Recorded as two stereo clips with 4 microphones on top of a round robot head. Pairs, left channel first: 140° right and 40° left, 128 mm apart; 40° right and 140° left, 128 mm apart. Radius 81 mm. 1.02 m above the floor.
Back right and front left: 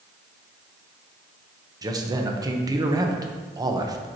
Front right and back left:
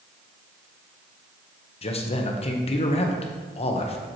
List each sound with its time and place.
1.8 s a man speaking: 15° right, 0.9 m